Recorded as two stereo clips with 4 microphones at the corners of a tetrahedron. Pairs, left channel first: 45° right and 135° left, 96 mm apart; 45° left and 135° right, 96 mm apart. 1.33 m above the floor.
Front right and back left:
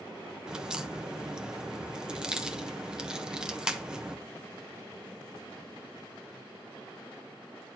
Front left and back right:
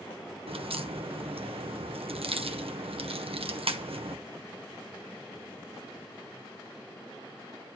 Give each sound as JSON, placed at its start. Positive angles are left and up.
{"t": 0.5, "sound": "a crack", "azimuth_deg": -140, "distance_m": 1.0}